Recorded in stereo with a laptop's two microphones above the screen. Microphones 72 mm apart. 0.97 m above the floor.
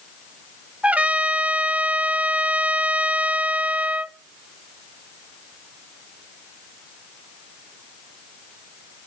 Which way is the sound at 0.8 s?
15° right (ahead or behind).